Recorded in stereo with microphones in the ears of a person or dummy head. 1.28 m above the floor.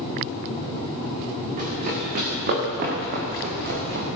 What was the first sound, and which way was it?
Running footsteps, 45° right (ahead or behind).